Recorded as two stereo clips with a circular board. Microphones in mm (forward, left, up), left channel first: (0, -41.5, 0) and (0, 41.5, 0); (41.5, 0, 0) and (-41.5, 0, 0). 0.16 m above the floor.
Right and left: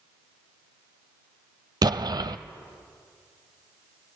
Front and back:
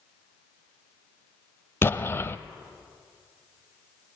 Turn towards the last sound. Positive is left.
turn(degrees=60)